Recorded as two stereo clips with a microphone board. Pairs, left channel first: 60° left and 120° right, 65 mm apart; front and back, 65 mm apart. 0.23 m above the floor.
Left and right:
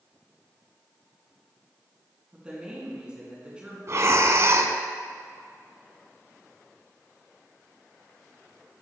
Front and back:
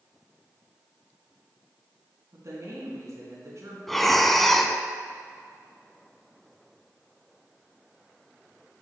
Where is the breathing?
85° right, 0.5 m.